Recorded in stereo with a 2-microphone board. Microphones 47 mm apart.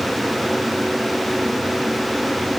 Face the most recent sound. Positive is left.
No sound to turn to.